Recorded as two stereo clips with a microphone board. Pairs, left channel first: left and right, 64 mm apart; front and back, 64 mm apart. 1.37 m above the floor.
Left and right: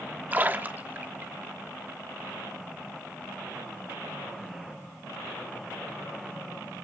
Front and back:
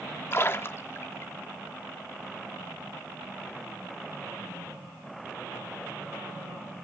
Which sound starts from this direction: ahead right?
A splash, at 0.3 s.